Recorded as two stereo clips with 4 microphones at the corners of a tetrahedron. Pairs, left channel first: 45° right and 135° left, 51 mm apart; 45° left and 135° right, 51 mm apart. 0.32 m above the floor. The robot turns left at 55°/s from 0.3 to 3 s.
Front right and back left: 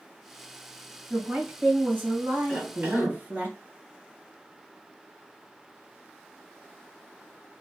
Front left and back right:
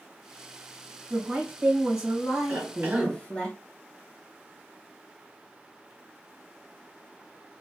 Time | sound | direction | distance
1.1 | a woman speaking | 150° right | 2.0 m
2.5 | a cough | 165° right | 2.5 m